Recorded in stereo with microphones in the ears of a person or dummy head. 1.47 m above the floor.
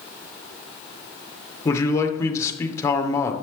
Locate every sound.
1.6 s a man speaking: 15° left (ahead or behind), 1.2 m